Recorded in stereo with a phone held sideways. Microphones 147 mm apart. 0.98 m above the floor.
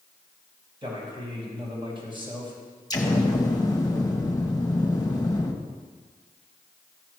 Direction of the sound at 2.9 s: 25° left (ahead or behind).